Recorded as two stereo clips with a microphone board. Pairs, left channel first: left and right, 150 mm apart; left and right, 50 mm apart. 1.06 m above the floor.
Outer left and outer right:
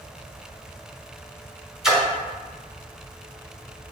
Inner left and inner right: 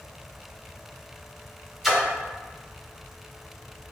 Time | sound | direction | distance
1.8 | a splash | 5° right (ahead or behind) | 1.1 m